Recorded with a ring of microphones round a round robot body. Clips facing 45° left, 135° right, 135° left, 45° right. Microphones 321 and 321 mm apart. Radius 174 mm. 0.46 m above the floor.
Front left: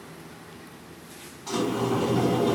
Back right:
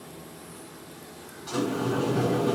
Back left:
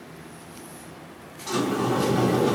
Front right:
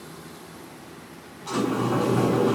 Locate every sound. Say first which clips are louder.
1.5 s a sliding door: front left 1 dB, even; 90° left, 2.5 m